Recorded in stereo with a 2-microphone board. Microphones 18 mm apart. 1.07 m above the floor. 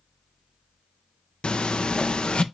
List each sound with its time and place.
1.4 s a phone buzzing: 70° left (ahead or behind), 0.5 m